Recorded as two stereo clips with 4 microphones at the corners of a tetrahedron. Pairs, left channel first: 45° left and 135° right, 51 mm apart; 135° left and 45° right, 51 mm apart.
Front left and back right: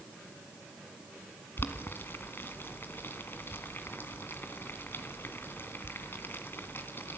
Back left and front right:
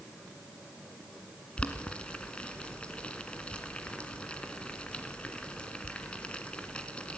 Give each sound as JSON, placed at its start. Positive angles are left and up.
{"t": 1.6, "sound": "boiling", "azimuth_deg": 75, "distance_m": 2.0}